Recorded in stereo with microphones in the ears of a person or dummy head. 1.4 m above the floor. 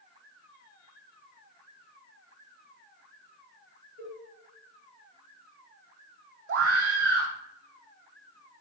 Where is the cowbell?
80° right, 4.5 m.